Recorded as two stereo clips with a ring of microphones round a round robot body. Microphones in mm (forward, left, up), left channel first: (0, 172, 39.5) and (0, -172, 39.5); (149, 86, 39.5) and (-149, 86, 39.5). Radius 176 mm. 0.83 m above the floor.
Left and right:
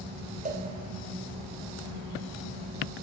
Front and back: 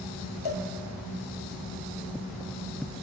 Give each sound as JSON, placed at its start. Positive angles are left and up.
{"t": 0.5, "sound": "a cowbell", "azimuth_deg": -20, "distance_m": 3.5}